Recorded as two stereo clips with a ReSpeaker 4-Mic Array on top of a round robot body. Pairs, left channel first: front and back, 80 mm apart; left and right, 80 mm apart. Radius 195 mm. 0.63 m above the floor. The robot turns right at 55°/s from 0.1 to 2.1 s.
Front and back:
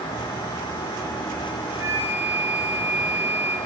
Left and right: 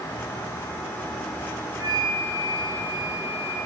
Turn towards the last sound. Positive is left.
turn(degrees=-110)